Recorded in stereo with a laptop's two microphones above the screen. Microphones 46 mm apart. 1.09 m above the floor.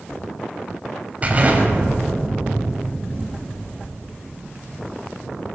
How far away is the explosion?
About 6.5 m.